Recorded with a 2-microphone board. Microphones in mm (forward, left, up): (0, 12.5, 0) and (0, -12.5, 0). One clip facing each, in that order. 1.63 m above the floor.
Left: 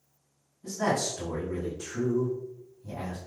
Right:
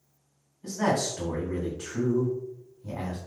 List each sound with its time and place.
0.6 s a man speaking: 75° right (ahead or behind), 2.0 m